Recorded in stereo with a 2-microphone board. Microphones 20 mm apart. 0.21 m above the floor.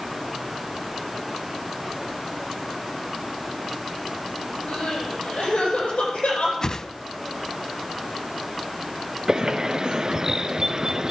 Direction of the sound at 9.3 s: 35° right (ahead or behind).